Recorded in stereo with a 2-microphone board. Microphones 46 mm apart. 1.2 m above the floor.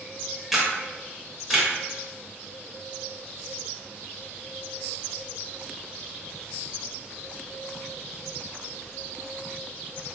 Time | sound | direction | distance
0.5 | a camera shutter | 5° right (ahead or behind) | 0.8 m